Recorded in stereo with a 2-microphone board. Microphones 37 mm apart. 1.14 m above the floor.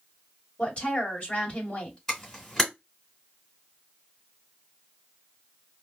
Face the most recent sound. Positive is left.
turn(degrees=5)  # may be behind; listen again after turning